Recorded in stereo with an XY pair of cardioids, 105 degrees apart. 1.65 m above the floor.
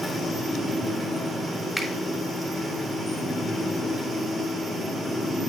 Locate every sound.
0.0 s a fan: 5° left, 3 m
1.8 s a finger snap: 5° left, 3.5 m